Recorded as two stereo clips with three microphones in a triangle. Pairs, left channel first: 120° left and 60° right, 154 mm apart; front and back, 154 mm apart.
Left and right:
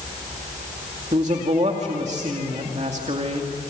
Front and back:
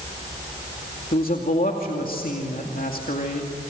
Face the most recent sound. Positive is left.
turn(degrees=-20)